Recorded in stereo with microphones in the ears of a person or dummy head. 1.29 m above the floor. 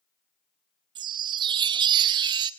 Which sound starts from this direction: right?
A chime, at 0.9 s.